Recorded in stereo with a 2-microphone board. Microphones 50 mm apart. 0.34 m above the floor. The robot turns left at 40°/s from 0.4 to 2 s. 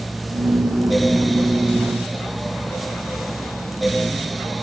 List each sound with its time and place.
Only background noise.